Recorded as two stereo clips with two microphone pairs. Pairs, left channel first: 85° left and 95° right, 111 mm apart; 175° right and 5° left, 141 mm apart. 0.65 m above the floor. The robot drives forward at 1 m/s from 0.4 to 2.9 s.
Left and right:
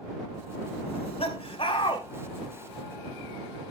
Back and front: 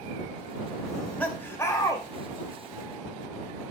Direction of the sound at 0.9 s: 95° left.